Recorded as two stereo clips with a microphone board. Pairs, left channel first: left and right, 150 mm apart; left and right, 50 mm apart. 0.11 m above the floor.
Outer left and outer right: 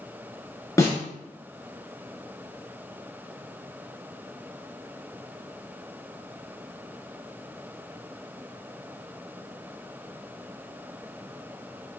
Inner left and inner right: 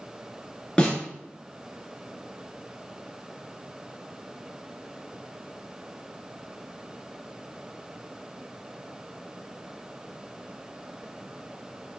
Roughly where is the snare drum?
Left.